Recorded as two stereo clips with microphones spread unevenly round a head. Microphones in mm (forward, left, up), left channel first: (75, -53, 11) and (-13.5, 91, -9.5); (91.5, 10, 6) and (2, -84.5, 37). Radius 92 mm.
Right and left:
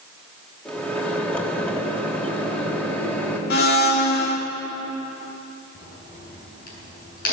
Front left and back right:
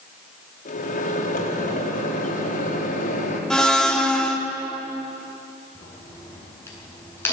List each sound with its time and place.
0.7 s a microwave: 25° left, 4 m
3.5 s a blender: 45° right, 2.5 m
5.8 s a crack: 30° right, 8 m